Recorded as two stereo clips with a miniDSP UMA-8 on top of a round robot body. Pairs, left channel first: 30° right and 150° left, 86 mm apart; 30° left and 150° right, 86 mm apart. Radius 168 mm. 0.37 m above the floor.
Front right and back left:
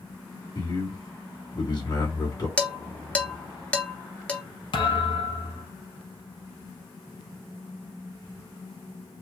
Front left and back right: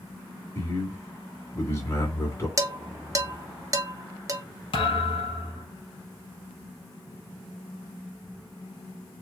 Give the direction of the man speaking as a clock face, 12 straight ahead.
1 o'clock.